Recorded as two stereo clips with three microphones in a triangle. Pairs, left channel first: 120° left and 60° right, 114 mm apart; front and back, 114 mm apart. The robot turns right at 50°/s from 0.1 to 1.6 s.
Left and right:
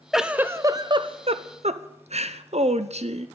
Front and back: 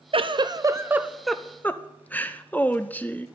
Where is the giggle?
150° right, 0.7 m; by 3.3 s 75° right, 0.7 m.